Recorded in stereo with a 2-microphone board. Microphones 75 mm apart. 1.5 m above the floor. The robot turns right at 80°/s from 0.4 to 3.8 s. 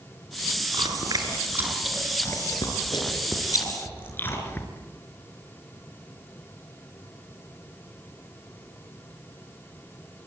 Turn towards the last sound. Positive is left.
turn(degrees=30)  # may be behind; listen again after turning